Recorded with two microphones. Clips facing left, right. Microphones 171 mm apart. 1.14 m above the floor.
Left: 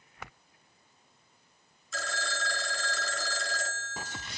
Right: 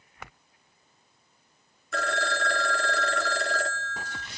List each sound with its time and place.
1.9 s a phone ringing: 60° right (ahead or behind), 1.3 m